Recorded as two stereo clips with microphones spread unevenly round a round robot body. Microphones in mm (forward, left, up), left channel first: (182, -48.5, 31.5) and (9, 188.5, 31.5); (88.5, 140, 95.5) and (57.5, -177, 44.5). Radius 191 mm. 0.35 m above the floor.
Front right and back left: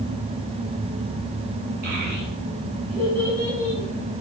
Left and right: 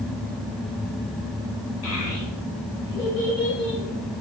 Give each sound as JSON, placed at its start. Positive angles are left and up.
{"t": 1.8, "sound": "a child speaking", "azimuth_deg": 90, "distance_m": 1.0}